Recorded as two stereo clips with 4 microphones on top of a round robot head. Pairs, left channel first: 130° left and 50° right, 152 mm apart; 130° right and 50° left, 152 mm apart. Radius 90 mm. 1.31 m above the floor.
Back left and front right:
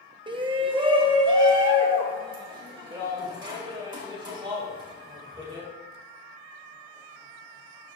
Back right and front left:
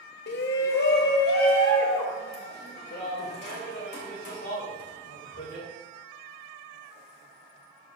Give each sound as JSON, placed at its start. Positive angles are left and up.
{"t": 0.3, "sound": "a shout", "azimuth_deg": -110, "distance_m": 0.6}